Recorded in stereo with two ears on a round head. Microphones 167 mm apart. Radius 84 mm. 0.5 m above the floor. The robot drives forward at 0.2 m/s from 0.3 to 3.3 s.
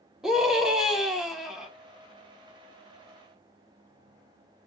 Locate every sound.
0.2 s a scream: centre (ahead or behind), 0.8 m